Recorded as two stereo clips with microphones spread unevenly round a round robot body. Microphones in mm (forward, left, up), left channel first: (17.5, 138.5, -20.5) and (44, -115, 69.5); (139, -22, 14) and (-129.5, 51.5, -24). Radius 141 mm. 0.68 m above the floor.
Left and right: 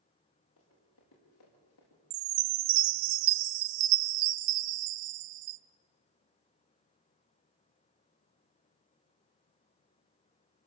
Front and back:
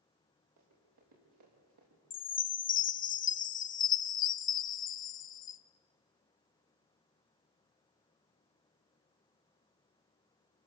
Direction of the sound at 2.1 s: 80° right.